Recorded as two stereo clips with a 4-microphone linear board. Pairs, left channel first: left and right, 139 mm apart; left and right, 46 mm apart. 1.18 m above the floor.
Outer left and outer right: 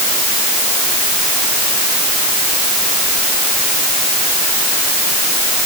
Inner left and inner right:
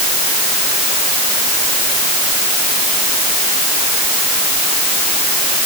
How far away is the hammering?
I don't hear hammering.